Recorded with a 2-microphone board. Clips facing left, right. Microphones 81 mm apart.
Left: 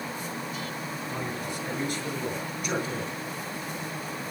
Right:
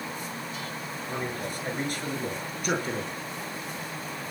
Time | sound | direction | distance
1.1 | a man speaking | 40° right (ahead or behind) | 7.5 m